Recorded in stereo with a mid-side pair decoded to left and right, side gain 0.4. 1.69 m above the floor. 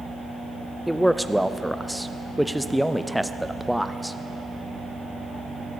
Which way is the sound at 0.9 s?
Straight ahead.